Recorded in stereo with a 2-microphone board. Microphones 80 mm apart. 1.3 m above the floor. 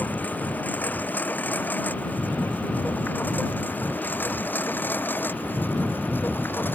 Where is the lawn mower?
20° left (ahead or behind); by 6.8 s 25° left (ahead or behind).